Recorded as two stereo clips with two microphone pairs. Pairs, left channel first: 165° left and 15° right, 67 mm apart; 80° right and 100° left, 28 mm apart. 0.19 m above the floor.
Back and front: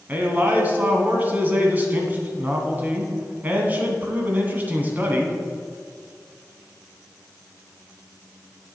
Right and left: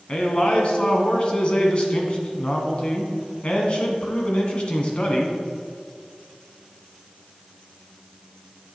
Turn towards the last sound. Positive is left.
turn(degrees=-60)